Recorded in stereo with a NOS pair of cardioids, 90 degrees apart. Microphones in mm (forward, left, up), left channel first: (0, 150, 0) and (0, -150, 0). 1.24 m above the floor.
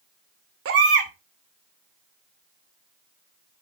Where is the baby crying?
50° right, 2 m.